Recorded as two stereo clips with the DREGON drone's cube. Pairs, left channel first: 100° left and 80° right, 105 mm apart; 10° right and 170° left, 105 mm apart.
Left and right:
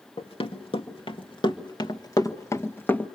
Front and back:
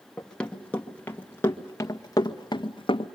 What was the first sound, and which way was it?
Running footsteps, 70° left.